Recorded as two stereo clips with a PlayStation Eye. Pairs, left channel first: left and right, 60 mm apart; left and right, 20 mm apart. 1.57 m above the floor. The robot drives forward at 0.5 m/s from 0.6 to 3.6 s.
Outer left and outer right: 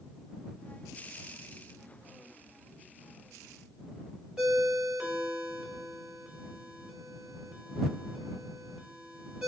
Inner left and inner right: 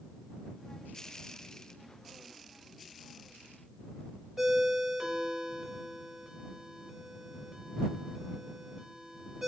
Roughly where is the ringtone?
Centre.